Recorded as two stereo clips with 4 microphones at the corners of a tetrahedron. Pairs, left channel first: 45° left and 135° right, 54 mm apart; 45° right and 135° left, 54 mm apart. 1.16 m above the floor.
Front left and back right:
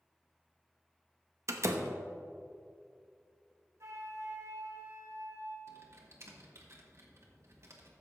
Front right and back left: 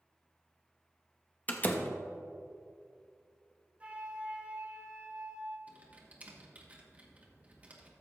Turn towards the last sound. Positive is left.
turn(degrees=-165)